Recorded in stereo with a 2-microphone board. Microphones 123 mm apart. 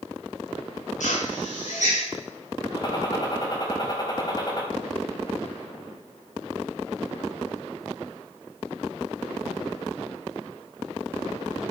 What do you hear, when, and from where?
1.0 s a drill: 85° left, 6.5 m
2.8 s a gunshot: 35° left (ahead or behind), 4 m